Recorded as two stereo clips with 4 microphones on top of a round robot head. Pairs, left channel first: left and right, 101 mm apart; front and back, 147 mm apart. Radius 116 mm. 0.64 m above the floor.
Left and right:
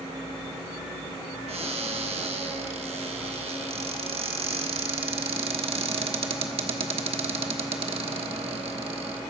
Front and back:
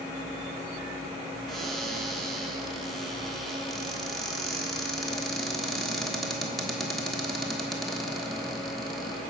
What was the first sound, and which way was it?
A cupboard door, 90° right.